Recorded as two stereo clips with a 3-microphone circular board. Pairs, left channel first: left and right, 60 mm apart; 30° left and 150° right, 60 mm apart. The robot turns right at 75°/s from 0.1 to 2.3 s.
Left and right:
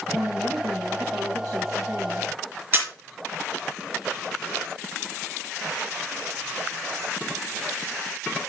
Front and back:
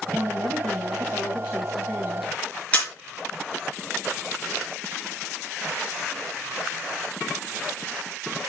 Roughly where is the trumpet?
I don't hear a trumpet.